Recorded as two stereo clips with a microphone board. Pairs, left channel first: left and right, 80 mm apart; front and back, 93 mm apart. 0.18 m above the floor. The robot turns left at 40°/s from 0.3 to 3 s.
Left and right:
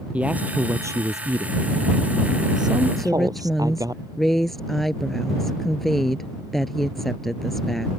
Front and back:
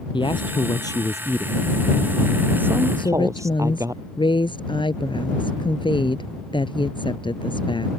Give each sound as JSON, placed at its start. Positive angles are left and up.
{"t": 0.1, "sound": "a man speaking", "azimuth_deg": -20}
{"t": 3.0, "sound": "a woman speaking", "azimuth_deg": 5}